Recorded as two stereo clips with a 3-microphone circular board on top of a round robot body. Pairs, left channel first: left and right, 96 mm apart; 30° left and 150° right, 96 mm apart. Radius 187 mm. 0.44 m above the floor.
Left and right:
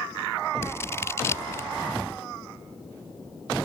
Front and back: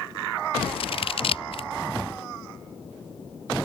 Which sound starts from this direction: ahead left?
Scissors, at 0.6 s.